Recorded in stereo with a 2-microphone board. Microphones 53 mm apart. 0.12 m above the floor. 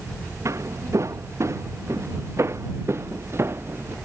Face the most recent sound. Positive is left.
turn(degrees=-45)  # may be behind; listen again after turning